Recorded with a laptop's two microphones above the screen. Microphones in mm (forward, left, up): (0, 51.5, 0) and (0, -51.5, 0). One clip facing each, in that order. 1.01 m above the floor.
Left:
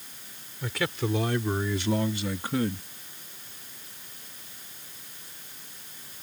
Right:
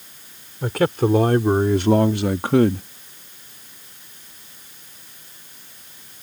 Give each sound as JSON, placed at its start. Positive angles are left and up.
{"t": 0.6, "sound": "a man speaking", "side_deg": -50}